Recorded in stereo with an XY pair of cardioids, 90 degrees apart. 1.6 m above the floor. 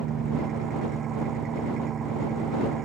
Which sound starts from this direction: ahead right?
An engine running, at 0.0 s.